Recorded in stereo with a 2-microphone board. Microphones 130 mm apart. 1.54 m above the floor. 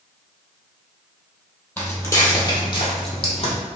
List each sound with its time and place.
1.8 s footsteps: 10° left (ahead or behind), 1.9 m; by 3.5 s 45° left (ahead or behind), 2.5 m